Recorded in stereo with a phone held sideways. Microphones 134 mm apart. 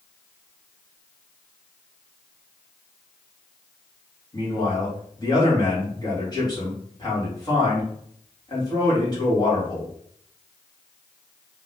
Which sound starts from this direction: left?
A man speaking, at 4.3 s.